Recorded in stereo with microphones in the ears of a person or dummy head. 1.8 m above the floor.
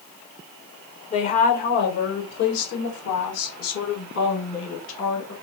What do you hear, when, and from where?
1.1 s a woman speaking: 35° left (ahead or behind), 0.9 m; by 5.3 s 75° left (ahead or behind), 3 m